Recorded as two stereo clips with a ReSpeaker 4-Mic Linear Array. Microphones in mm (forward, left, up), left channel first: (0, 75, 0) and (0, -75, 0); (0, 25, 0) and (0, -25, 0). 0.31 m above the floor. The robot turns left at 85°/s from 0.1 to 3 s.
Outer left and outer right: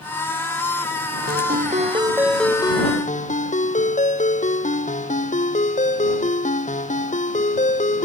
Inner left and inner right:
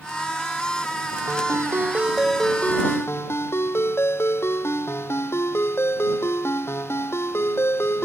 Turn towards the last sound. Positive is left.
turn(degrees=125)